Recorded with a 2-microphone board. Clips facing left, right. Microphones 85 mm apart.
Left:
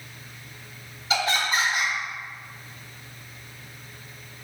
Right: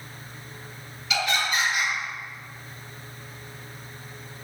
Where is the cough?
No cough in this recording.